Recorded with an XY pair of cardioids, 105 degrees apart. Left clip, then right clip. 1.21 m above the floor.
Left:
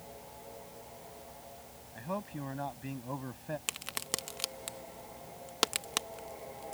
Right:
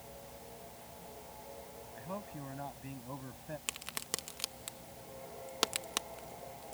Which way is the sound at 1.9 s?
35° left.